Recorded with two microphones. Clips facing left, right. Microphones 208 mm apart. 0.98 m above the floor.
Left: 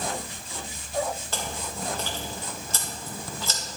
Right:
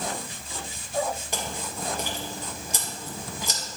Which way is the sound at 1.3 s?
15° right (ahead or behind).